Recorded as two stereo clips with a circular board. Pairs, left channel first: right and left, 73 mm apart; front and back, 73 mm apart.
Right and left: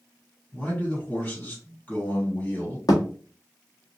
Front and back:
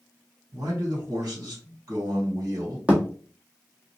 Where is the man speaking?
160° right, 2 m.